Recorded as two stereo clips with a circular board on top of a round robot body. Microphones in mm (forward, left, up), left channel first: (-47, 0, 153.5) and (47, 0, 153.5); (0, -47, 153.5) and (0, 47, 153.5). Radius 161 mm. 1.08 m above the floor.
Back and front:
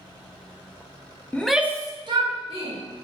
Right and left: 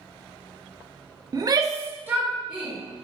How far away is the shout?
About 0.5 m.